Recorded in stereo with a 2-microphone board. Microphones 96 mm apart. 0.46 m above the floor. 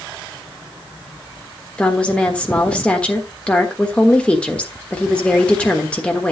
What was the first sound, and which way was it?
A woman speaking, 10° left (ahead or behind).